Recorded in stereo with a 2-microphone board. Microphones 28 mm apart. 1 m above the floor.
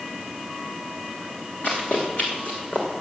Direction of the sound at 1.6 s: 75° left (ahead or behind).